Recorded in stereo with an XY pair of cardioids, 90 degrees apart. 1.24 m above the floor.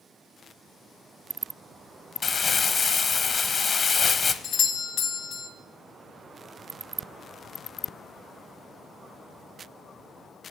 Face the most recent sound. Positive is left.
turn(degrees=65)